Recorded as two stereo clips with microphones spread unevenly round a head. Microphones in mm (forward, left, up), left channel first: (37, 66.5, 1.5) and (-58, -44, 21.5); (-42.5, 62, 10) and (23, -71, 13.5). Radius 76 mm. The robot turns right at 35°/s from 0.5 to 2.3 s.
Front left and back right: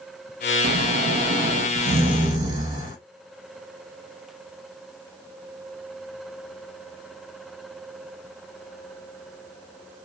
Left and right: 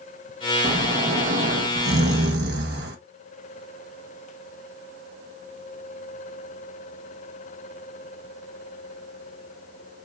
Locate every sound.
0.6 s snoring: 125° right, 1.2 m; by 3.0 s 65° right, 1.2 m